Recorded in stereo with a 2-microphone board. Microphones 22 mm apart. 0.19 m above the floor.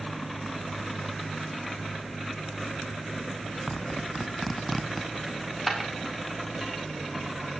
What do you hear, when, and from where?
3.7 s a zipper: 5° left (ahead or behind), 0.9 m
5.3 s a dropped coin: centre (ahead or behind), 3 m